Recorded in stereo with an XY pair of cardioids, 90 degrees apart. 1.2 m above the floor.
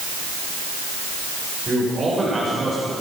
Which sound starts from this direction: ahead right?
A man speaking, at 1.7 s.